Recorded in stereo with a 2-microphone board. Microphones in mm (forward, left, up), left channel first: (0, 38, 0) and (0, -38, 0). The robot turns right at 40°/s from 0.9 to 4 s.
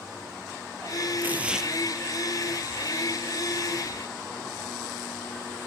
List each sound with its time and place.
1.2 s tearing paper: 25° right (ahead or behind), 2 m; by 1.7 s 5° right (ahead or behind), 2 m